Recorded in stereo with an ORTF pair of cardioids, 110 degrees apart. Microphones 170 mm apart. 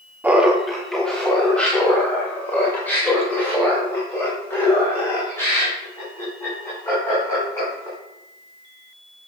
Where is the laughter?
10° right, 0.6 m; by 8.0 s 15° left, 5 m.